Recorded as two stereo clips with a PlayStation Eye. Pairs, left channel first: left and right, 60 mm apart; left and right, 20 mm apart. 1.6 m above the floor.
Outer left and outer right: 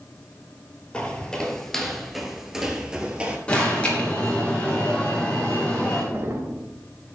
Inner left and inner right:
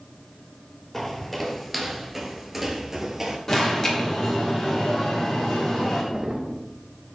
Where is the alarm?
20° left (ahead or behind), 3 m.